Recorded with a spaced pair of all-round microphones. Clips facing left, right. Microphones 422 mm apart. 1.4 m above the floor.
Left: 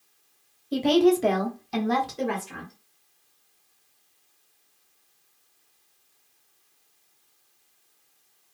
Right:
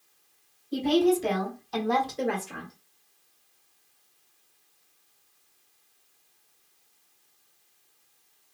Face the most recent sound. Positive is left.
turn(degrees=5)  # may be behind; listen again after turning